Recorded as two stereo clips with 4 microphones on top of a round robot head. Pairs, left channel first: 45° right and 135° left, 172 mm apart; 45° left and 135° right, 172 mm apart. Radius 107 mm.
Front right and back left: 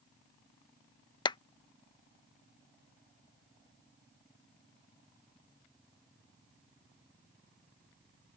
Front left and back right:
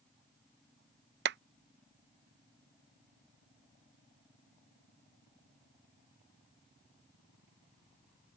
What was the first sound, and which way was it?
A clap, 110° right.